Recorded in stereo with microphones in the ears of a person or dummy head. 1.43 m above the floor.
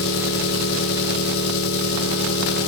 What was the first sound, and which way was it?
An engine running, 60° left (ahead or behind).